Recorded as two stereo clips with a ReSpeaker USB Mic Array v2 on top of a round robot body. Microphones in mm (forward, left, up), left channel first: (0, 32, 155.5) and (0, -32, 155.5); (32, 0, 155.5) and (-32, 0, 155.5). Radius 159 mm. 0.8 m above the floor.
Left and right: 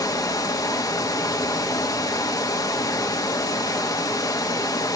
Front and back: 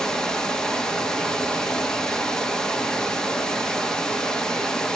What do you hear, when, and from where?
0.0 s running water: 80° left, 1.7 m